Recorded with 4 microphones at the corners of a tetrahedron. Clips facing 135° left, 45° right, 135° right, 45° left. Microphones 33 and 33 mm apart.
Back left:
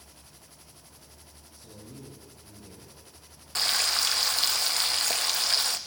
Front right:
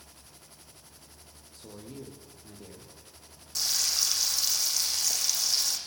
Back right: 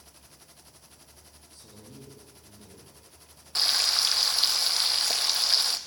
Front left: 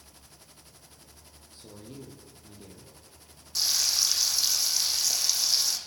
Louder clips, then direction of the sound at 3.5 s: Back left 4 dB, back right 2 dB; straight behind.